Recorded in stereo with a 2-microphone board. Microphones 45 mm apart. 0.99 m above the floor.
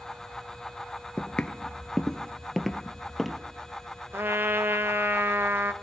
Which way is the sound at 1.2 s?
25° left (ahead or behind).